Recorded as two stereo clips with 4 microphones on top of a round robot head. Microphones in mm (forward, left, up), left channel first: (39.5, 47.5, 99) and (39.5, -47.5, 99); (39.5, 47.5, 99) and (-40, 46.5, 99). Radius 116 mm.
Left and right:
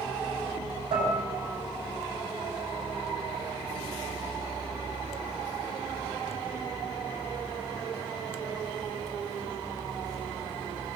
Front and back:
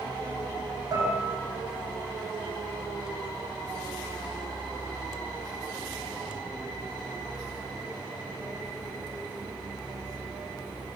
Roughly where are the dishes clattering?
Behind right.